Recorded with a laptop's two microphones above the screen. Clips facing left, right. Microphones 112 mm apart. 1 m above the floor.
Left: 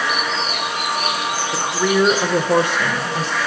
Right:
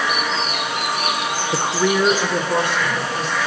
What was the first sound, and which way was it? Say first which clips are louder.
A woman speaking: even; 25° right (ahead or behind).